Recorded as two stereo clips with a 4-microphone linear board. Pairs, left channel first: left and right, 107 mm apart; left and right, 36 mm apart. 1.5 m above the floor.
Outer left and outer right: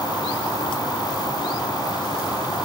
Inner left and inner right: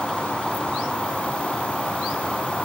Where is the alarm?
I don't hear an alarm.